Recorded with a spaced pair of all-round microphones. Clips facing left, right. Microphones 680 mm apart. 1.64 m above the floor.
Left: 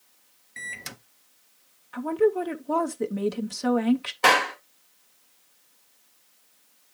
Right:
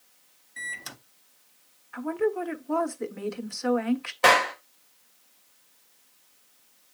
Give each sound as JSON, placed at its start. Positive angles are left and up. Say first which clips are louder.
{"t": 0.6, "sound": "a microwave", "louder": "left 3 dB", "side_deg": 55, "distance_m": 0.8}
{"t": 1.9, "sound": "a woman speaking", "louder": "left 4 dB", "side_deg": 60, "distance_m": 1.0}
{"t": 4.2, "sound": "a clap", "louder": "right 4 dB", "side_deg": -10, "distance_m": 2.0}